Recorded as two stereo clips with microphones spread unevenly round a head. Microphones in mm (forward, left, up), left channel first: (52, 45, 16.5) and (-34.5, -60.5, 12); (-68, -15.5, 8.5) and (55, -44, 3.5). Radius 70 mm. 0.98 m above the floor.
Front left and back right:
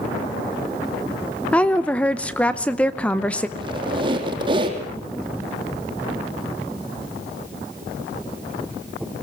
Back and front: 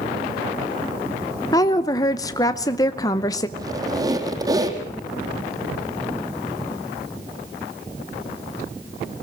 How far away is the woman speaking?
About 0.7 m.